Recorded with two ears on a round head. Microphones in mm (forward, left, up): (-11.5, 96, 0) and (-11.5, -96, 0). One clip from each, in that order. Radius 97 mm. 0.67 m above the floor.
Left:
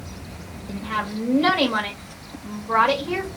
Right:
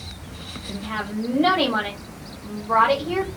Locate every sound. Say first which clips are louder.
0.7 s a woman speaking: left 3 dB; 70° left (ahead or behind), 2.5 m